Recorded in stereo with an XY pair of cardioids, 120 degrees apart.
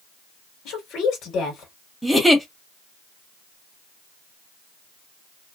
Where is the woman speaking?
65° left, 1.4 m.